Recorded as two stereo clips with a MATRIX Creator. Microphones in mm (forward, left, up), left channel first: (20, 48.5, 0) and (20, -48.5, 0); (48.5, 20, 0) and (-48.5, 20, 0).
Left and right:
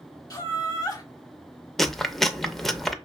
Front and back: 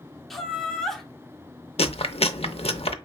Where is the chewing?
5° left, 0.5 m.